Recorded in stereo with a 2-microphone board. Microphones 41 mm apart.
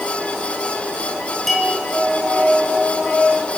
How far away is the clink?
About 5 m.